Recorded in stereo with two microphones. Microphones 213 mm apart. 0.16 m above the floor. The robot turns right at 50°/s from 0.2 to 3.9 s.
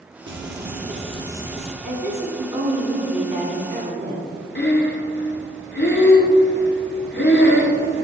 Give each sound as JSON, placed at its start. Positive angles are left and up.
{"t": 0.3, "sound": "frying", "azimuth_deg": -70, "distance_m": 0.8}
{"t": 1.8, "sound": "a woman speaking", "azimuth_deg": -175, "distance_m": 1.3}
{"t": 4.5, "sound": "breathing", "side_deg": 60, "distance_m": 0.9}